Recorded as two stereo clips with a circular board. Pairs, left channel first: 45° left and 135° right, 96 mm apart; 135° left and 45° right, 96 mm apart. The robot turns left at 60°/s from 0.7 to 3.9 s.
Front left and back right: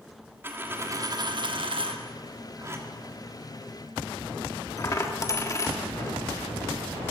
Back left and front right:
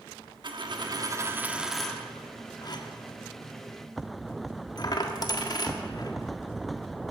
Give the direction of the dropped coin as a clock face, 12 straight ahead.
2 o'clock.